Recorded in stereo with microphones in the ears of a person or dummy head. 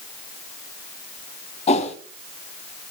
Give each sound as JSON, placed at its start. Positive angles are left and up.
{"t": 1.7, "sound": "a whoosh", "side_deg": 35, "distance_m": 1.8}